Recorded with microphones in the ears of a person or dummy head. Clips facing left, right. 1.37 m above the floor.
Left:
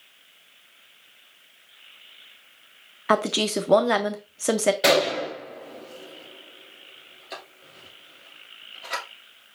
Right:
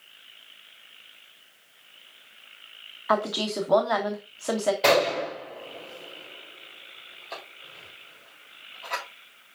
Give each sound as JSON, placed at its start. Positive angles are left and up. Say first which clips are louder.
{"t": 3.1, "sound": "a woman speaking", "louder": "left 3 dB", "side_deg": 35, "distance_m": 0.6}
{"t": 4.8, "sound": "a gunshot", "louder": "left 1 dB", "side_deg": 10, "distance_m": 3.0}